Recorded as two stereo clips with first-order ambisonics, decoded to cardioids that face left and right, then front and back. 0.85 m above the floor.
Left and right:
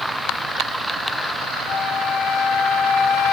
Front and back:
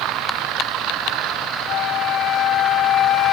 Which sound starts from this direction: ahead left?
A flute, at 1.7 s.